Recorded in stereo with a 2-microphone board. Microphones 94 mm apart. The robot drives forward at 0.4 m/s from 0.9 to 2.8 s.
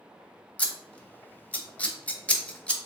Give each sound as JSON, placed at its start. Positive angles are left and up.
{"t": 0.6, "sound": "scissors", "side_deg": 15, "distance_m": 0.6}